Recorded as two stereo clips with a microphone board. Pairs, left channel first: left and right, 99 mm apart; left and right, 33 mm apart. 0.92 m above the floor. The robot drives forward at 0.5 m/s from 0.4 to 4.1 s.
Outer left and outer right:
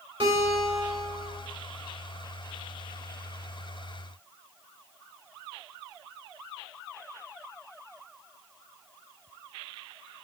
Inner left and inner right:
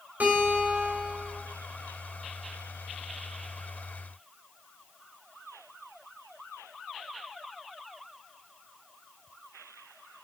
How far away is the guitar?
About 2.5 m.